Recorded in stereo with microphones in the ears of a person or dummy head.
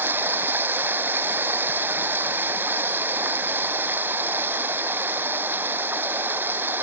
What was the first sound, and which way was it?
Running water, 15° right (ahead or behind).